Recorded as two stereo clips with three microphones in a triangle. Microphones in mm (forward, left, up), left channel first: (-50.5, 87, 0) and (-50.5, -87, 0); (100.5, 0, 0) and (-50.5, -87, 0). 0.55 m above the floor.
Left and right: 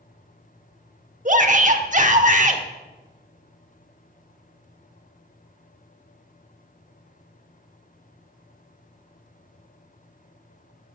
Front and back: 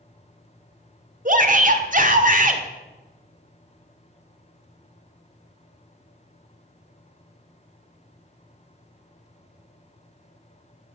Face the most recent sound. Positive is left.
turn(degrees=-120)